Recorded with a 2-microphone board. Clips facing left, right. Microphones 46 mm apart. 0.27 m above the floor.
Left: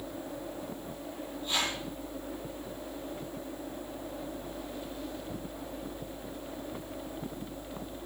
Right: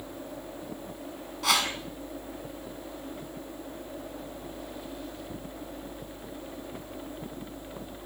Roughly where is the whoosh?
Right.